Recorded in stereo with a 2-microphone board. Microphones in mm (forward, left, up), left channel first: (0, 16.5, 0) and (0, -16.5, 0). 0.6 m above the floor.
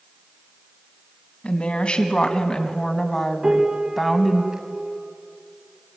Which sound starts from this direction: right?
A piano, at 3.4 s.